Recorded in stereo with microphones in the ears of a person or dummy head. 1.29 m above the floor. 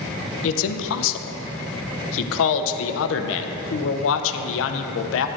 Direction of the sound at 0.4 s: 75° left (ahead or behind).